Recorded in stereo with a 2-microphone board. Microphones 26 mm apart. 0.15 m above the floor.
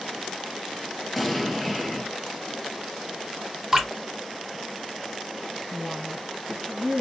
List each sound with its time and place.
1.2 s an explosion: centre (ahead or behind), 0.6 m
3.7 s dripping: 20° right (ahead or behind), 1.7 m
5.7 s a woman speaking: 15° left (ahead or behind), 1.4 m